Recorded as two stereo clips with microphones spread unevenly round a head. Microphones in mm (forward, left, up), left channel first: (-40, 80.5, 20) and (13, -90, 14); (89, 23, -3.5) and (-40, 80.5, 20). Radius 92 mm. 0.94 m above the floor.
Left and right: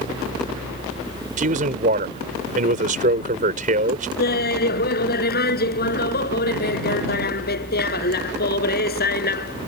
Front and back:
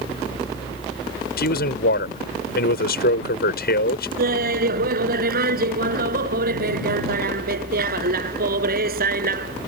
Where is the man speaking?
25° right.